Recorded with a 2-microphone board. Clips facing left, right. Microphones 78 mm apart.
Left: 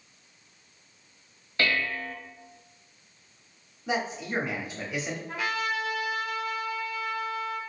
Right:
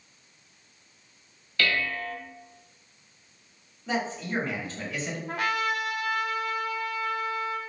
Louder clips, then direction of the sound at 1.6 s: Even; 25° left (ahead or behind).